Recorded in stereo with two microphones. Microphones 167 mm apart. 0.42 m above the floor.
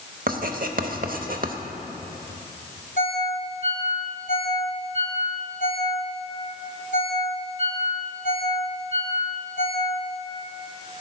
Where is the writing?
60° right (ahead or behind), 0.7 m.